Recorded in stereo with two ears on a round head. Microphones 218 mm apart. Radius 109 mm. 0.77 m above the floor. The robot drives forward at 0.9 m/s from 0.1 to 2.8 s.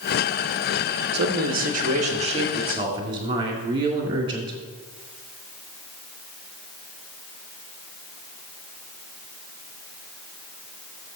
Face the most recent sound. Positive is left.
turn(degrees=-20)  # may be behind; listen again after turning